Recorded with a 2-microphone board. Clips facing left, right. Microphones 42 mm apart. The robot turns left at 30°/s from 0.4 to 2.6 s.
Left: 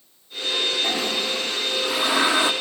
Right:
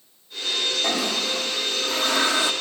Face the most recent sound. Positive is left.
turn(degrees=145)